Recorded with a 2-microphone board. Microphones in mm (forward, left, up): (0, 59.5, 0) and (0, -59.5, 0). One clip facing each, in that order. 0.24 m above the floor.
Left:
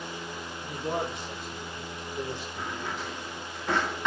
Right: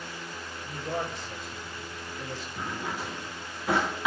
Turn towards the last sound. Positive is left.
turn(degrees=-10)  # may be behind; listen again after turning